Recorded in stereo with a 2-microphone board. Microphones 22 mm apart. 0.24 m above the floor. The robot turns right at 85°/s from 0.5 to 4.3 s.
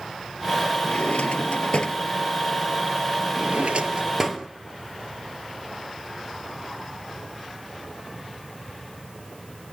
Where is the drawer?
55° left (ahead or behind), 1.5 m; by 4.5 s 15° right (ahead or behind), 1.5 m.